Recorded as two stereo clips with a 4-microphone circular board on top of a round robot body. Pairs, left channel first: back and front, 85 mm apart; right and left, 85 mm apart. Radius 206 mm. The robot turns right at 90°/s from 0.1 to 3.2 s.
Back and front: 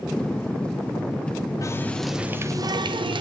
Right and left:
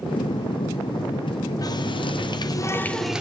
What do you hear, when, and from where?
1.6 s a running tap: 130° right, 0.7 m; by 3.2 s 10° left, 0.7 m